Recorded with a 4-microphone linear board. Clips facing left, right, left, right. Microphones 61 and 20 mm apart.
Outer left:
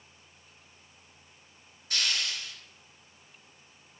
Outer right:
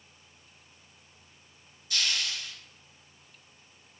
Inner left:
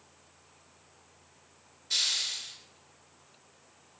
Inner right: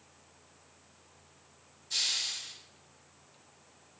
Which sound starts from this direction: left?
A hiss, at 1.9 s.